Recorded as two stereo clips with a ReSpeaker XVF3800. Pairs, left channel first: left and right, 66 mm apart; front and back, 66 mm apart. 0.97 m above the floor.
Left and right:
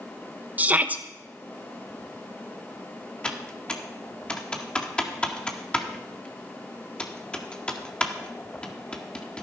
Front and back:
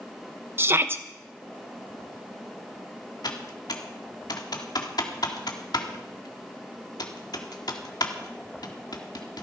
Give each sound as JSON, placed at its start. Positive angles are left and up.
{"t": 0.6, "sound": "a shout", "azimuth_deg": -145, "distance_m": 1.0}
{"t": 3.2, "sound": "typing on a keyboard", "azimuth_deg": 15, "distance_m": 1.7}